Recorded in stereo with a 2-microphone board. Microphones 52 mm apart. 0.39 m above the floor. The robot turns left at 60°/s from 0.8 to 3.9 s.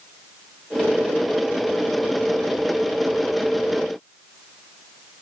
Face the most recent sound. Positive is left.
No sound to turn to.